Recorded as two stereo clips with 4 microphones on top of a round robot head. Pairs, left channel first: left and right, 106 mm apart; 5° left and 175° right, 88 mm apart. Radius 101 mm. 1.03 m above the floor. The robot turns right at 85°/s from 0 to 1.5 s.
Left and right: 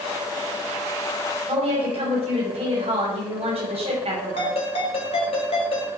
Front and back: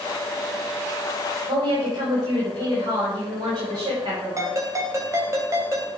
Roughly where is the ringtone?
Behind left.